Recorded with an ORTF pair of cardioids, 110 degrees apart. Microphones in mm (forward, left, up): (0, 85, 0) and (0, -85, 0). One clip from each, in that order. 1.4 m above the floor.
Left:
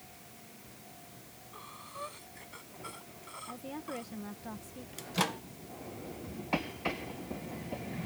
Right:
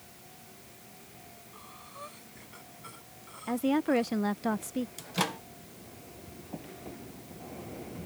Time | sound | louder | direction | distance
1.5 | breathing | left 3 dB | 25° left | ?
3.5 | a woman speaking | right 15 dB | 65° right | ?
5.0 | a microwave | left 1 dB | straight ahead | ?